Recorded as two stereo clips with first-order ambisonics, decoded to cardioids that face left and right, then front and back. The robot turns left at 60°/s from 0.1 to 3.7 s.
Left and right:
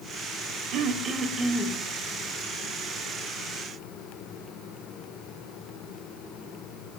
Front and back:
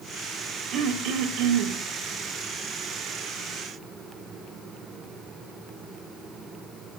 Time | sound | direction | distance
0.7 | throat clearing | 130° right | 0.8 m